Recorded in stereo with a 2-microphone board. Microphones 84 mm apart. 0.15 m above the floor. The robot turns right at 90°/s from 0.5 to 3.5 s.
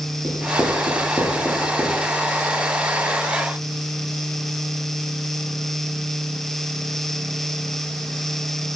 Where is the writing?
60° right (ahead or behind), 3 m; by 2.0 s 35° left (ahead or behind), 3 m.